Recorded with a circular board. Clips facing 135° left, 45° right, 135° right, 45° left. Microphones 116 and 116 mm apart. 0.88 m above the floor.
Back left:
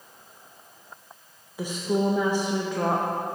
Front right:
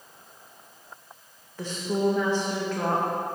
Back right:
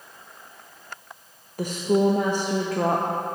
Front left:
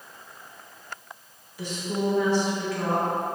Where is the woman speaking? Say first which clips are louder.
Back left 1 dB, back right 7 dB; 150° right, 0.6 m.